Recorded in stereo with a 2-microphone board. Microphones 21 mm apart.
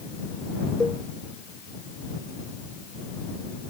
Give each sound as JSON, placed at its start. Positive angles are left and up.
{"t": 0.8, "sound": "a cowbell", "side_deg": 15}